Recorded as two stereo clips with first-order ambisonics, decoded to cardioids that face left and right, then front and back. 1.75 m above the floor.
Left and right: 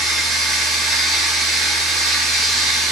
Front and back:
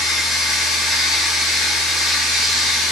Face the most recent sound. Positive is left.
turn(degrees=-40)